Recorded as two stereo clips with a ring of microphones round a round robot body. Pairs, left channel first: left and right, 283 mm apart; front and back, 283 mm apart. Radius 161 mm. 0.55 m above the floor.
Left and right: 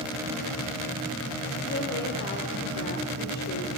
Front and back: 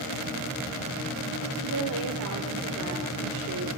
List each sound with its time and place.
1.6 s a woman speaking: 145° left, 2 m